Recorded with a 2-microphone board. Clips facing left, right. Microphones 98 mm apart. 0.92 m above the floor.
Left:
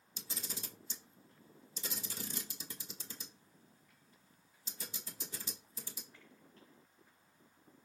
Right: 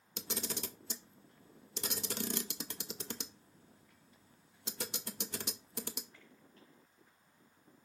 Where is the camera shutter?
75° right (ahead or behind), 0.8 m.